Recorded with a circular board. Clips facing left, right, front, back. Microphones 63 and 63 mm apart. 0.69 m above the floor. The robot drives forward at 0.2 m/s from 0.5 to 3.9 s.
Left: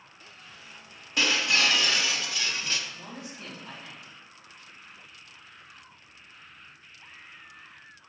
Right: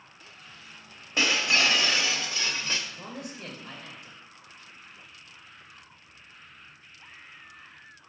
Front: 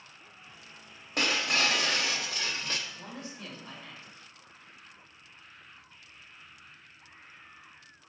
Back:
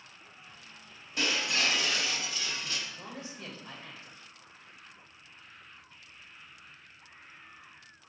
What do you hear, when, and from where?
1.2 s breaking glass: 30° right, 1.3 m; by 2.8 s 35° right, 1.0 m
2.9 s a man speaking: 115° right, 2.5 m; by 4.2 s 120° right, 2.5 m